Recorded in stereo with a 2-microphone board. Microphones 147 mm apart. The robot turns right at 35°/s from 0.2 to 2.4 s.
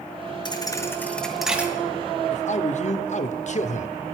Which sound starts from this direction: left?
A man speaking, at 2.3 s.